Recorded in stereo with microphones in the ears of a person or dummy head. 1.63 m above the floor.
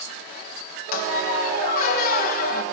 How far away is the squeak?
About 1.2 m.